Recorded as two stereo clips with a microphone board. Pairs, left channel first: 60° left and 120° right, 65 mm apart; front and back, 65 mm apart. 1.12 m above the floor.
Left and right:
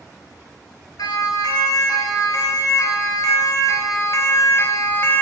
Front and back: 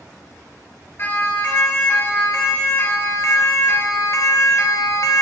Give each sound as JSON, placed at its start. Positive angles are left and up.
{"t": 1.0, "sound": "a siren", "azimuth_deg": 55, "distance_m": 3.5}